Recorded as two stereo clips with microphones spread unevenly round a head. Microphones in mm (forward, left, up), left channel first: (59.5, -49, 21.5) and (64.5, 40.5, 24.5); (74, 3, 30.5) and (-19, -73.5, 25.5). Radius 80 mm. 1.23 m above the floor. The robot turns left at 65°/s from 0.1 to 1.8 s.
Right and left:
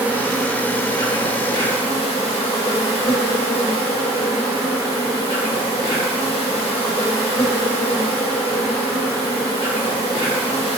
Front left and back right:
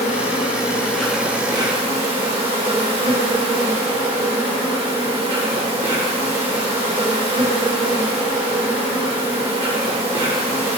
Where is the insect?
15° left, 0.9 m; by 10.8 s 95° right, 0.9 m.